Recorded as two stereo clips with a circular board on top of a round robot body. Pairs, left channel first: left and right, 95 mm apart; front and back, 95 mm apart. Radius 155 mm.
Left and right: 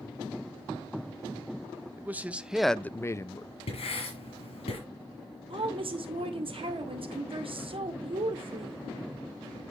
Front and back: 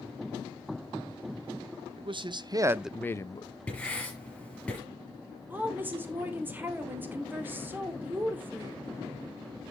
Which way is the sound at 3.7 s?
80° left.